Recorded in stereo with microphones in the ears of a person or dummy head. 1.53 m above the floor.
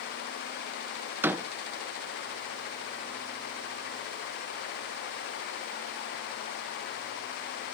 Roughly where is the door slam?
Centre.